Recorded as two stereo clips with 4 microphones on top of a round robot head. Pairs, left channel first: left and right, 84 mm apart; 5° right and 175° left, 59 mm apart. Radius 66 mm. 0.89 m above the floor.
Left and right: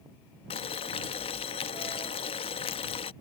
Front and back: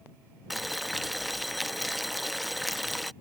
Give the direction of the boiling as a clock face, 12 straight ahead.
9 o'clock.